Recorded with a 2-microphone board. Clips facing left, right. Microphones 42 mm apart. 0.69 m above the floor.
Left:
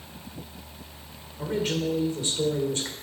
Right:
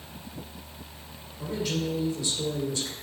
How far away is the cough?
No cough in this recording.